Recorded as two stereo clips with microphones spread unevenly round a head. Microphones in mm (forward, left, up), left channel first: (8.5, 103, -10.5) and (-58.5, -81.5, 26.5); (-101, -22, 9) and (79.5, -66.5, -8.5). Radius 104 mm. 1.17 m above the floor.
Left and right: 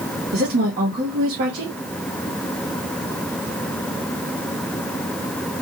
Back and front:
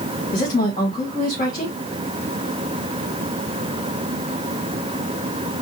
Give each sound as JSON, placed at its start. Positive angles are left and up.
{"t": 0.3, "sound": "a woman speaking", "azimuth_deg": -150, "distance_m": 2.0}